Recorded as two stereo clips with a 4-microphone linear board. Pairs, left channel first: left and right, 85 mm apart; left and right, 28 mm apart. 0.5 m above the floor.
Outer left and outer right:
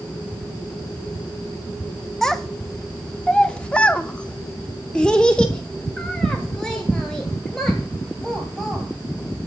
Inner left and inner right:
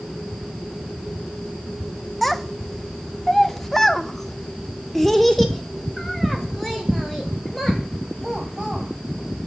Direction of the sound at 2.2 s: 5° left (ahead or behind).